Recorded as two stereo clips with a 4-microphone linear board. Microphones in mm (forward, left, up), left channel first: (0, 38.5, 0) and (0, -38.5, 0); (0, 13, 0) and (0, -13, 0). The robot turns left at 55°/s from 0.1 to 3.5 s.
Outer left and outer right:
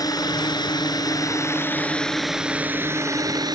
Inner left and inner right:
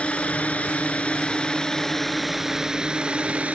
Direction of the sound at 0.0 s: 55° left (ahead or behind).